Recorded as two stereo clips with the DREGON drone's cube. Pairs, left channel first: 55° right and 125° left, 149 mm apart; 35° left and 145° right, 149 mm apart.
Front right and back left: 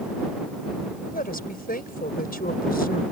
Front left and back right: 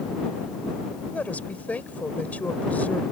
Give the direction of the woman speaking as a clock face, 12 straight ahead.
2 o'clock.